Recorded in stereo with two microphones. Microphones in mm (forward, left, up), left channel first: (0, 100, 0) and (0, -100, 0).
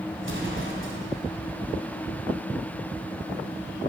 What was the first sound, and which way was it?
An explosion, 70° right (ahead or behind).